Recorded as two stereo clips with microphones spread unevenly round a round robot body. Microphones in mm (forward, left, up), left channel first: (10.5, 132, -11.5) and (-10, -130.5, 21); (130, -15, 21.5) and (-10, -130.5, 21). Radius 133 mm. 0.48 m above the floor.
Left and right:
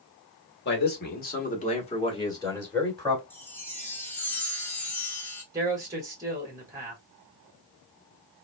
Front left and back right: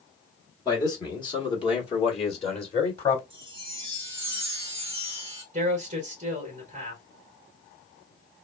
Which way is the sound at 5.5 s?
175° right.